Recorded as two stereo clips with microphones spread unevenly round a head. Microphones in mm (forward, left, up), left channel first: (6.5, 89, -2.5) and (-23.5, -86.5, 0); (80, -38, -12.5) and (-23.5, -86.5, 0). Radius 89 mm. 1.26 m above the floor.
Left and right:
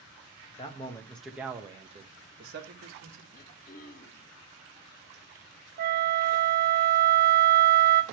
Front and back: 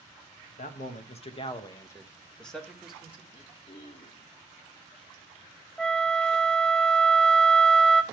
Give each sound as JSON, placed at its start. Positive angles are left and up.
{"t": 0.5, "sound": "a man speaking", "azimuth_deg": 20, "distance_m": 1.4}
{"t": 3.3, "sound": "throat clearing", "azimuth_deg": 60, "distance_m": 1.0}
{"t": 5.8, "sound": "a flute", "azimuth_deg": -60, "distance_m": 0.5}